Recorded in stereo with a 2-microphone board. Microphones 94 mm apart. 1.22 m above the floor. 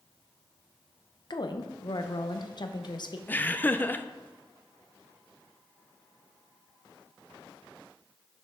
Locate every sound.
1.3 s a woman speaking: 50° left (ahead or behind), 0.7 m
3.3 s laughter: 20° left (ahead or behind), 0.5 m